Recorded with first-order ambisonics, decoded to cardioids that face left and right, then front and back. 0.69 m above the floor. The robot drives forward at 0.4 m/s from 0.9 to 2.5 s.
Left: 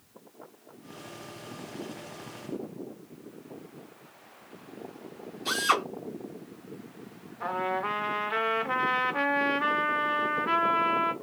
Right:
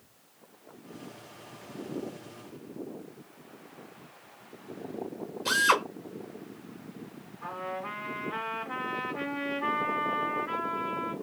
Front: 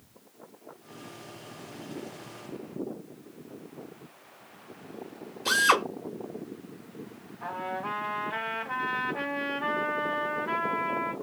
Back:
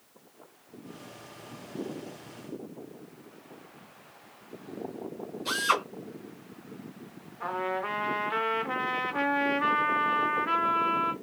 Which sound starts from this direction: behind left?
A trumpet, at 7.4 s.